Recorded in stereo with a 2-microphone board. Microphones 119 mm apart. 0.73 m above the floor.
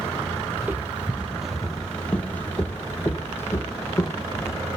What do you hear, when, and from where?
0.6 s footsteps: 15° right (ahead or behind), 1.0 m; by 4.7 s 25° left (ahead or behind), 1.8 m